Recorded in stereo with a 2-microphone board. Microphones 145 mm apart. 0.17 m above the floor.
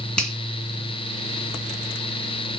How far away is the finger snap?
About 2 m.